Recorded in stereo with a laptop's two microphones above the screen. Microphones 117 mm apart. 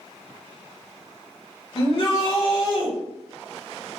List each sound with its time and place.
1.8 s a shout: 45° left (ahead or behind), 1.3 m